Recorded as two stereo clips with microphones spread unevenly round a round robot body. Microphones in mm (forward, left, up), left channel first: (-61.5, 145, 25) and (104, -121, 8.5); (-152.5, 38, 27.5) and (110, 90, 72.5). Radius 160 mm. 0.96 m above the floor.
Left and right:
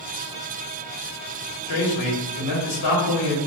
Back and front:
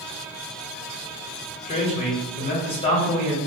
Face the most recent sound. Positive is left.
turn(degrees=135)